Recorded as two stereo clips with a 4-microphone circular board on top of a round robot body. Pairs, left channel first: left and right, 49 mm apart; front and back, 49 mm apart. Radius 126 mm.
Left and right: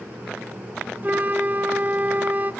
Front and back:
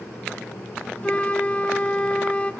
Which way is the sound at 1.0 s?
50° right.